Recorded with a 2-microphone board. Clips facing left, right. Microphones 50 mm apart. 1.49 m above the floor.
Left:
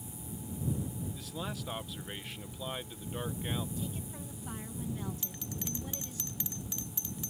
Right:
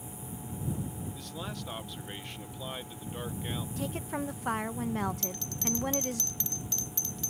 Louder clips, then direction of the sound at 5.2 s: Right 5 dB; 10° left (ahead or behind).